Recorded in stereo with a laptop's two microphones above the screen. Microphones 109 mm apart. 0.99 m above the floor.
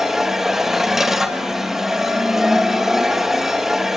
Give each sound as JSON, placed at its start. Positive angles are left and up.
{"t": 0.0, "sound": "a machine running", "side_deg": -5, "distance_m": 1.3}